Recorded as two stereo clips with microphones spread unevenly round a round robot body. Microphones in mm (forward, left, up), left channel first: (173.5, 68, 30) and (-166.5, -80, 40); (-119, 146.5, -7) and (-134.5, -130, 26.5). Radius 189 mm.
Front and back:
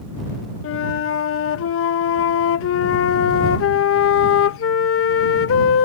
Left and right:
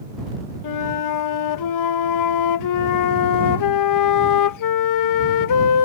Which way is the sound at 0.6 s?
80° left.